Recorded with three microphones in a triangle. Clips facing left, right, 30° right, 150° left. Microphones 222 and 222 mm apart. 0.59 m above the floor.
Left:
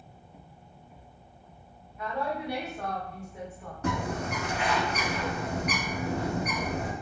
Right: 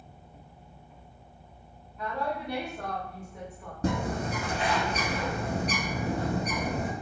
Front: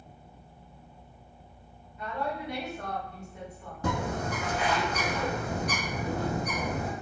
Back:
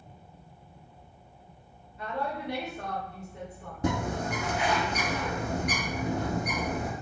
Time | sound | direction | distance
2.0 | a woman speaking | 175° left | 1.0 m
3.8 | a bird | 145° right | 0.9 m